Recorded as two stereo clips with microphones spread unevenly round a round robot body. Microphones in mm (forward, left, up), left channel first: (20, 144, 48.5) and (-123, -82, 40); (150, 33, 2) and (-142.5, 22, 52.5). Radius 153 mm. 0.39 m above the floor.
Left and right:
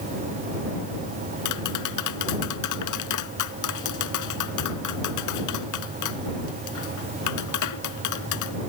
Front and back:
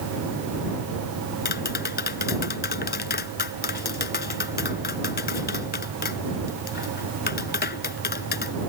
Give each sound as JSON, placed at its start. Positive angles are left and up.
{"t": 1.4, "sound": "tapping", "azimuth_deg": 60}